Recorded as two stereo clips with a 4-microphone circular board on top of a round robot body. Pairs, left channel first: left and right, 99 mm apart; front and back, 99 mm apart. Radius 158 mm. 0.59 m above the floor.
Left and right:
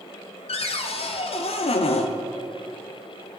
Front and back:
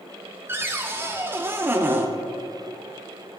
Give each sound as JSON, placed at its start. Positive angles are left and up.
{"t": 0.5, "sound": "a cupboard door", "azimuth_deg": 110, "distance_m": 0.7}